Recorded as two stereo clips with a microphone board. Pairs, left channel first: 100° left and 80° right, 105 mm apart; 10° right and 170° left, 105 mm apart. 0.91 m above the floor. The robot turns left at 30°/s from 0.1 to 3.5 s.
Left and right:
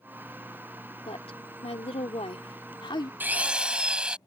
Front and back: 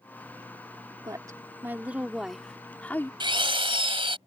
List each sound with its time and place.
1.1 s a woman speaking: 120° left; by 3.1 s 55° left
3.2 s a drill: 150° right; by 4.2 s 160° right